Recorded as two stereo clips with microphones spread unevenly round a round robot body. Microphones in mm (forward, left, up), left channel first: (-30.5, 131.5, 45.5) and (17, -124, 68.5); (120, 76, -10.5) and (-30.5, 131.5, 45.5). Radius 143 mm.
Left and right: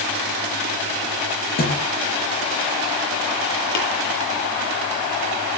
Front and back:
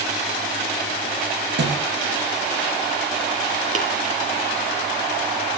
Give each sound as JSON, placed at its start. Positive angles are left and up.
{"t": 1.6, "sound": "a thud", "azimuth_deg": 160, "distance_m": 8.0}
{"t": 3.8, "sound": "tapping", "azimuth_deg": 120, "distance_m": 9.0}